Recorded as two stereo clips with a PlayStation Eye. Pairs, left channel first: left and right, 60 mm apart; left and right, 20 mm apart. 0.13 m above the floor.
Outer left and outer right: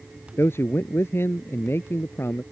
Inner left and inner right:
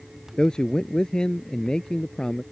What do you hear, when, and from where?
0.4 s a man speaking: 45° left (ahead or behind)